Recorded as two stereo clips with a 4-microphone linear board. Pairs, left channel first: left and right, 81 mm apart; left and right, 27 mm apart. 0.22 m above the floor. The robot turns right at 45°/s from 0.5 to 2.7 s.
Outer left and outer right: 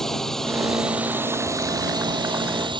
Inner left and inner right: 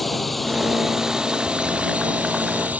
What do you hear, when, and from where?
0.0 s a drone: 175° left; by 2.8 s 85° right